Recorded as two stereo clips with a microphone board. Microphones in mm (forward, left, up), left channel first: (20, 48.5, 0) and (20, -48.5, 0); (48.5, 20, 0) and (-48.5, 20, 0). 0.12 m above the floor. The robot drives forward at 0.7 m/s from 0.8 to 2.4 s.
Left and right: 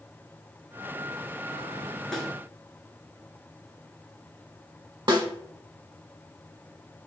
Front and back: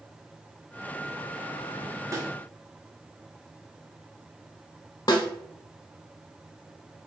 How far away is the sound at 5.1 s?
About 1.1 m.